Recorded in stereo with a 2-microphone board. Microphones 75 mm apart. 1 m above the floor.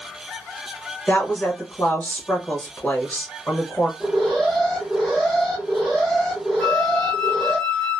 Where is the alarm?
5° left (ahead or behind), 1.3 m.